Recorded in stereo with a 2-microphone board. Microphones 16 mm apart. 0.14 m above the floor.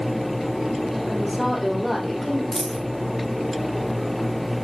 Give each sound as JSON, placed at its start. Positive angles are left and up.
{"t": 1.1, "sound": "a woman speaking", "side_deg": 0, "distance_m": 5.5}
{"t": 2.5, "sound": "a dropped coin", "side_deg": 35, "distance_m": 4.0}